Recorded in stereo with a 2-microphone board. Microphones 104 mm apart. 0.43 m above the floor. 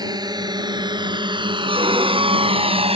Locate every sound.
0.0 s a drone: 40° right (ahead or behind); by 3.0 s 65° right (ahead or behind)
1.7 s a violin: 55° right (ahead or behind)